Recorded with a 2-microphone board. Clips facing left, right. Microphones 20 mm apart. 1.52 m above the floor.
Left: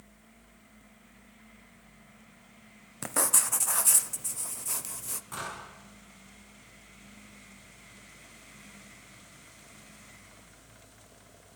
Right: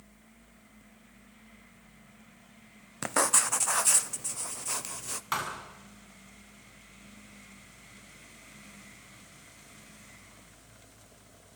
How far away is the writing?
About 0.8 m.